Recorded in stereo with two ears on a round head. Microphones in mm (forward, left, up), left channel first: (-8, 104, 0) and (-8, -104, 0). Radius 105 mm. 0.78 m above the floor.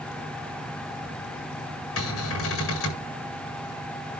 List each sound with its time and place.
2.0 s a cupboard door: 65° left (ahead or behind), 8.5 m